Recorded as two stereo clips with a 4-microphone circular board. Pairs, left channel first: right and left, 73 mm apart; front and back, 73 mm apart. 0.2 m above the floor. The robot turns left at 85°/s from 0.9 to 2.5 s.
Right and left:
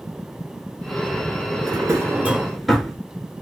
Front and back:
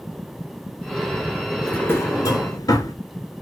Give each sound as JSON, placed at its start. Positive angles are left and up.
{"t": 1.6, "sound": "a drawer", "azimuth_deg": 75, "distance_m": 0.9}